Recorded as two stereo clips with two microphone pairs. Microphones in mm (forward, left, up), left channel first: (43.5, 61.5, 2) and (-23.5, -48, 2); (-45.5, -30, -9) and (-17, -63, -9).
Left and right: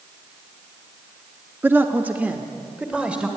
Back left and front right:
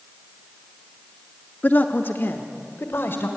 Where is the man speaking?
170° left, 0.8 m; by 3.3 s 160° left, 2 m.